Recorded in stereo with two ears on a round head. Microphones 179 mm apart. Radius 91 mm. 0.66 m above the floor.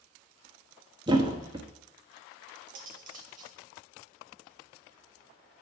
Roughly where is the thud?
Right.